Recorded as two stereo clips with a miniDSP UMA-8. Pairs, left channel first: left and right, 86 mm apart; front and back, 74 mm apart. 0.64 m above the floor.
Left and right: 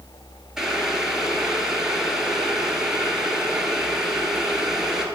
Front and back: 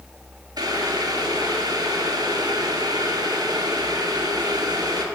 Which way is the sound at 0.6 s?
170° right.